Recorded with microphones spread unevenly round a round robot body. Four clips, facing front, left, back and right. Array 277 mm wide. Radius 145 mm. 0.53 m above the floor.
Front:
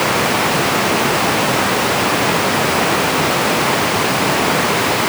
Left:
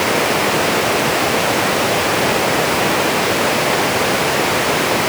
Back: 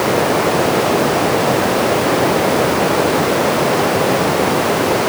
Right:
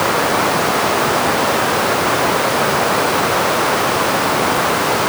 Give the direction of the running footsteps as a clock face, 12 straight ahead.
I don't hear running footsteps.